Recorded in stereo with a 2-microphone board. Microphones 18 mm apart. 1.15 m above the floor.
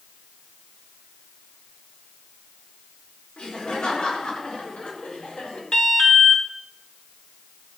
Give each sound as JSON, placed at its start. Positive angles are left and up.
{"t": 3.4, "sound": "laughter", "side_deg": 75, "distance_m": 4.5}
{"t": 5.7, "sound": "an alarm", "side_deg": 55, "distance_m": 2.0}